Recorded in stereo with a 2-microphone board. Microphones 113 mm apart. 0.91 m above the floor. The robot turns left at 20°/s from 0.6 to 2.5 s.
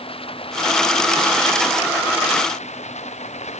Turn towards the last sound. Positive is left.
turn(degrees=85)